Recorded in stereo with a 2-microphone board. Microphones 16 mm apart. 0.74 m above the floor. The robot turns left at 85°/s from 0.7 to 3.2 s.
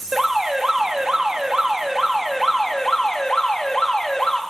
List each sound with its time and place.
0.1 s an alarm: 45° right, 0.9 m; by 4.4 s 100° left, 0.9 m